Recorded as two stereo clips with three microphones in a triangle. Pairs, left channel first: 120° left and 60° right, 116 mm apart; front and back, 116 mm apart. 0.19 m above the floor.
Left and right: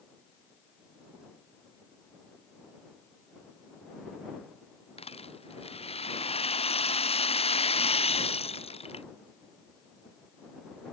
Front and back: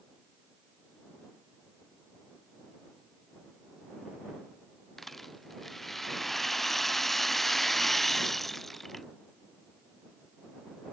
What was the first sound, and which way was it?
A rattle, 90° left.